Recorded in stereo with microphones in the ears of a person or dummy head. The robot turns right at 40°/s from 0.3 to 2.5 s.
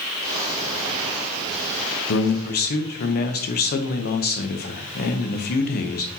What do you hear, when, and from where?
2.1 s a man speaking: 65° left (ahead or behind), 0.8 m; by 6.2 s 50° left (ahead or behind), 0.8 m